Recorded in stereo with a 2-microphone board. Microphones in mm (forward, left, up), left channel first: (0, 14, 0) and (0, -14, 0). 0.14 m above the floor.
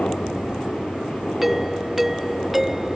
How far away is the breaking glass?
I don't hear breaking glass.